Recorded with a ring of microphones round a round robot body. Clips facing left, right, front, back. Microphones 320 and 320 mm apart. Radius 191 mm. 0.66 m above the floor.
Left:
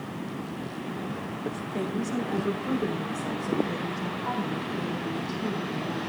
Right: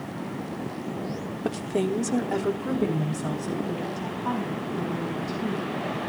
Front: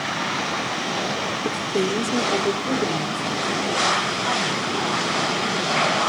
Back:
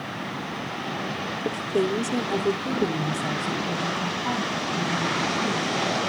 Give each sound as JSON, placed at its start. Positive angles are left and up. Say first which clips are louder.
{"t": 1.4, "sound": "a woman speaking", "louder": "right 7 dB, even", "azimuth_deg": -65, "distance_m": 1.6}